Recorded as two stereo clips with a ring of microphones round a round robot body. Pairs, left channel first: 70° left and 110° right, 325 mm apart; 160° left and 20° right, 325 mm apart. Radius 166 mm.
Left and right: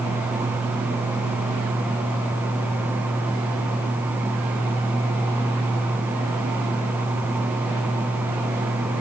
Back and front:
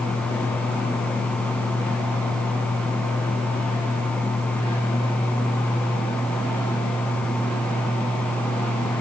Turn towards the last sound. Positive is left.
No sound to turn to.